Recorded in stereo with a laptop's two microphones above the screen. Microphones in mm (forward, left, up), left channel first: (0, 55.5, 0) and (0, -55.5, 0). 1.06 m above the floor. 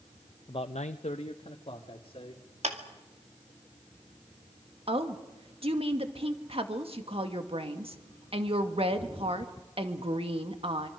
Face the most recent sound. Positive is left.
turn(degrees=-60)  # may be behind; listen again after turning